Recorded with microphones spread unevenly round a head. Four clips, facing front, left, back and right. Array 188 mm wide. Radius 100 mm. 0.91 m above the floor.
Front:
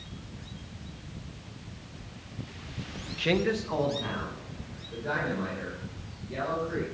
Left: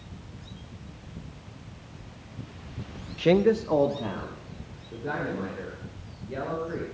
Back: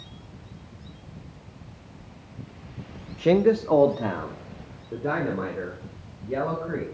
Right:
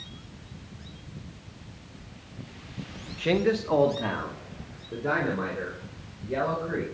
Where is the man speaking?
135° left, 1.0 m; by 6.8 s 155° right, 6 m.